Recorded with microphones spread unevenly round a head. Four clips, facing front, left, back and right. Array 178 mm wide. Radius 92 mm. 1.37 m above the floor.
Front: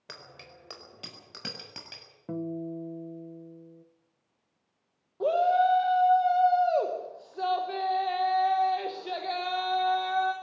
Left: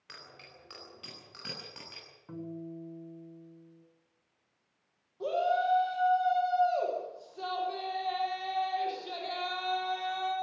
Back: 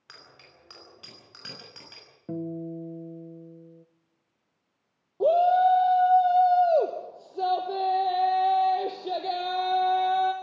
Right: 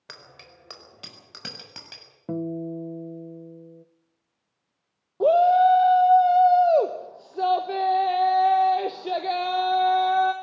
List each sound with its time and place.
0.1 s a bicycle bell: 35° right, 4 m; by 2.0 s 45° right, 7 m
2.3 s a guitar: 95° right, 1.1 m
5.2 s a shout: 115° right, 1.2 m